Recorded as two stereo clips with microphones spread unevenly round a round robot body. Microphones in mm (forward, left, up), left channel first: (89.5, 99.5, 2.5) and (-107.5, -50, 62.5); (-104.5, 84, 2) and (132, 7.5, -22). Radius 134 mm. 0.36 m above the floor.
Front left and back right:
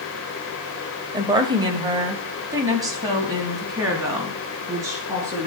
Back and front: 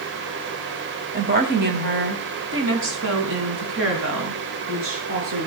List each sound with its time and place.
1.1 s a woman speaking: 65° right, 2 m; by 5.5 s 60° right, 6.5 m